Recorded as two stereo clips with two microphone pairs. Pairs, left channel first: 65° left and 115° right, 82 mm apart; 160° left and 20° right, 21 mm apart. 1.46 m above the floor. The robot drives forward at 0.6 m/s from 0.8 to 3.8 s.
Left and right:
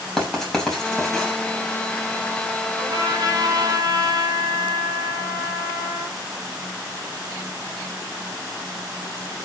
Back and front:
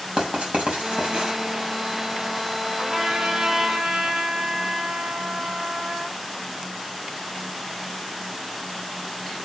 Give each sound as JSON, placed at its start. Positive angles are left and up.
{"t": 0.2, "sound": "writing", "azimuth_deg": -20, "distance_m": 6.5}
{"t": 2.8, "sound": "a trumpet", "azimuth_deg": -75, "distance_m": 5.5}